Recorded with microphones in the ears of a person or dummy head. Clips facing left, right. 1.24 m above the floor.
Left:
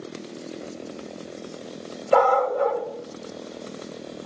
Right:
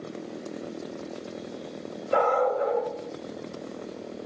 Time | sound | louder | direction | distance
2.1 | a dog barking | left 4 dB | 60° left (ahead or behind) | 1.2 m